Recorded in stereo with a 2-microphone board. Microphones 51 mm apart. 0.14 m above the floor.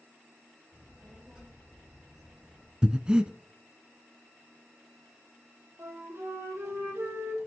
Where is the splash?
No splash in this recording.